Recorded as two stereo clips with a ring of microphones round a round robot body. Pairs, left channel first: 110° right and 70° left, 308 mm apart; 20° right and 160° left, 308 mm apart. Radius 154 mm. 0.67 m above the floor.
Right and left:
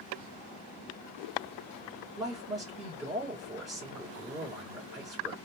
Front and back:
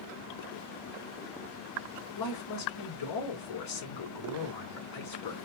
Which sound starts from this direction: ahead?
A man speaking, at 2.2 s.